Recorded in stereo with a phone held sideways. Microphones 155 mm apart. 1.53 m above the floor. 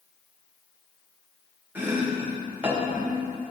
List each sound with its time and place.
1.8 s chopping: 10° right (ahead or behind), 2 m